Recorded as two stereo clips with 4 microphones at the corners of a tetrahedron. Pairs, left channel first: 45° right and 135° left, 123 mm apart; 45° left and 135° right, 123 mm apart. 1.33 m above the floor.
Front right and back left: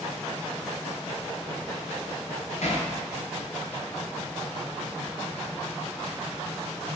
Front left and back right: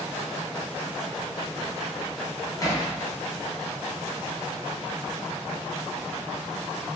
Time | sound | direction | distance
2.6 | hammering | 15° right | 6 m